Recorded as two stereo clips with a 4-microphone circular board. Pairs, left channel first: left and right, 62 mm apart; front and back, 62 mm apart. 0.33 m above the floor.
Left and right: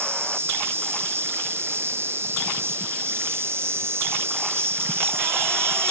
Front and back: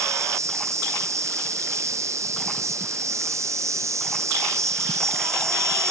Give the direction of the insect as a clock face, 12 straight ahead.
5 o'clock.